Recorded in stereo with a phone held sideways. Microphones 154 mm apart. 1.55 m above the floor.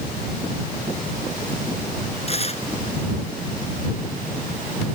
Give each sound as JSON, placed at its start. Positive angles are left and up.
{"t": 2.3, "sound": "tearing paper", "side_deg": 45}